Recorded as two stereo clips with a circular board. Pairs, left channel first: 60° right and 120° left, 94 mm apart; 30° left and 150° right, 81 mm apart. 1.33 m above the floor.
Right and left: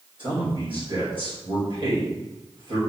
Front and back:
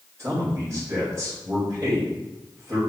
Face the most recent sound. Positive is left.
turn(degrees=150)